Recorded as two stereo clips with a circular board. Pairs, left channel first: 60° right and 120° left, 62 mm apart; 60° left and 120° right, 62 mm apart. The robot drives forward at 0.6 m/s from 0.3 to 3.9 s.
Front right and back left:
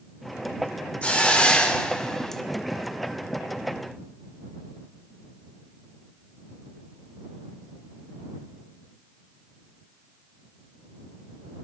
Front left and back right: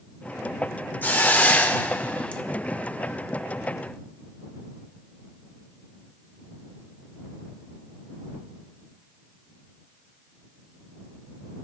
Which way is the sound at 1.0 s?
5° left.